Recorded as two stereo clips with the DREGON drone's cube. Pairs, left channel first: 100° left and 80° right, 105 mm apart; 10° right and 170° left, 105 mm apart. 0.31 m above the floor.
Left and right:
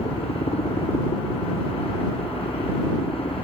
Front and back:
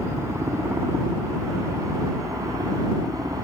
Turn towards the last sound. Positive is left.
turn(degrees=120)